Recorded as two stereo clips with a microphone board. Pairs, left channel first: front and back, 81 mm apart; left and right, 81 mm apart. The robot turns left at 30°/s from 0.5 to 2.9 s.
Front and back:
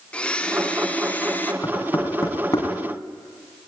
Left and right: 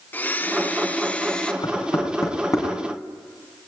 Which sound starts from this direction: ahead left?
A blender, at 0.1 s.